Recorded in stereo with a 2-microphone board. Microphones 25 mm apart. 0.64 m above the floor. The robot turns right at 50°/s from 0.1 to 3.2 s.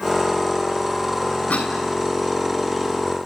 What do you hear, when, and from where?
1.5 s a cough: 80° left, 5 m